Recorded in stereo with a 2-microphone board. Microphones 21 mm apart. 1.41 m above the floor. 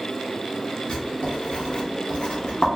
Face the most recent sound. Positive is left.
turn(degrees=55)  # may be behind; listen again after turning